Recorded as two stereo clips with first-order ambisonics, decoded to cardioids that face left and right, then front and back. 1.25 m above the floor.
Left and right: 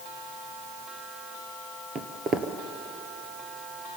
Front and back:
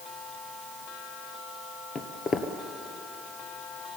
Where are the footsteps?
50° right, 1.5 m.